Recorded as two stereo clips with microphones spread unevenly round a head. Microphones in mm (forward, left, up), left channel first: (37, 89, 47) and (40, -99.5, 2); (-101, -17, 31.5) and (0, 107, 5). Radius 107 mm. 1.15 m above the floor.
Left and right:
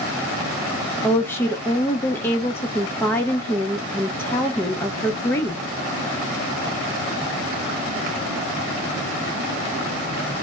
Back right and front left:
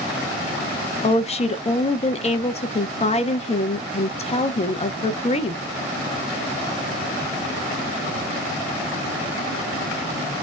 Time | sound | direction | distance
1.0 | a woman speaking | 175° left | 0.6 m